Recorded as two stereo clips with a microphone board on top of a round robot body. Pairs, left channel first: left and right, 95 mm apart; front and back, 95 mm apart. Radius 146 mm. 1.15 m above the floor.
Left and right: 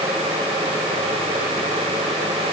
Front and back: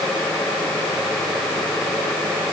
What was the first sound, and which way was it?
Only background noise.